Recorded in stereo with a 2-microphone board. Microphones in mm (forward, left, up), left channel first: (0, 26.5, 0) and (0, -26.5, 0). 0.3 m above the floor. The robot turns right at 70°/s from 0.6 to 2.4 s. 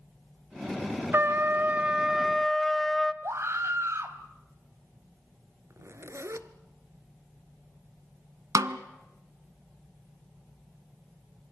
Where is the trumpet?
85° right, 0.9 m; by 3.1 s 5° left, 0.9 m.